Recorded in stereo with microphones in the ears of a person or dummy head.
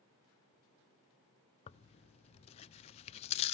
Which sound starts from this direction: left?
Tearing paper, at 1.7 s.